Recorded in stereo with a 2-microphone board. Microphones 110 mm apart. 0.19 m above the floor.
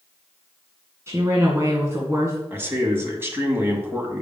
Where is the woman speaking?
25° right (ahead or behind), 2.0 m.